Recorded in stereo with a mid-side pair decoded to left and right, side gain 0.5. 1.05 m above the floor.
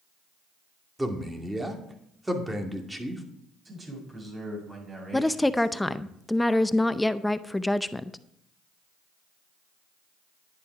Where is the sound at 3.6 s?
30° right, 6.5 m.